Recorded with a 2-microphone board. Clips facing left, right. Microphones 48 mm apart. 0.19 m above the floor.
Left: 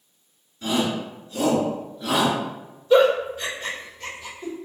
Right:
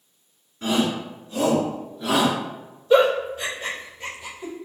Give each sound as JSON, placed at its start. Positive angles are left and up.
{"t": 0.6, "sound": "a shout", "side_deg": -40, "distance_m": 1.9}
{"t": 2.9, "sound": "a giggle", "side_deg": -10, "distance_m": 1.0}